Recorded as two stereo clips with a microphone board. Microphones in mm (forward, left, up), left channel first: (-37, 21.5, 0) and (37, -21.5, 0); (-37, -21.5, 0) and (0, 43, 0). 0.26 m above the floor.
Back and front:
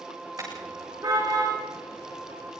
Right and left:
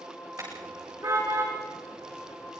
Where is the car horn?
20° left, 9 m; by 2.5 s 5° left, 7.5 m.